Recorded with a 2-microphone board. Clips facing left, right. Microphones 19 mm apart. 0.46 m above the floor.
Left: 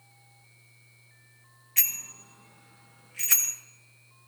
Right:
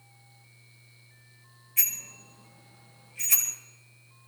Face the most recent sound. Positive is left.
turn(degrees=80)